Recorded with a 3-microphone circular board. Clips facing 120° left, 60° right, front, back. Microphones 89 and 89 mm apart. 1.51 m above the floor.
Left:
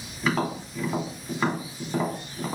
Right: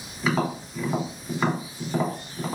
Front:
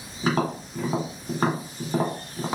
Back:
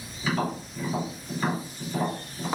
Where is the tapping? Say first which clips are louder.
Right 1 dB, front 3 dB; 30° left, 1.8 m.